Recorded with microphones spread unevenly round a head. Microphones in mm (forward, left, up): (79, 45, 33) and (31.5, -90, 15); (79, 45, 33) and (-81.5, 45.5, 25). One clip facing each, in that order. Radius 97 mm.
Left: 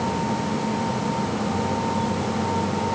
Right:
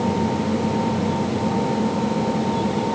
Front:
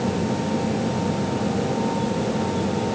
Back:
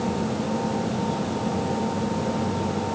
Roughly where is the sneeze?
I don't hear a sneeze.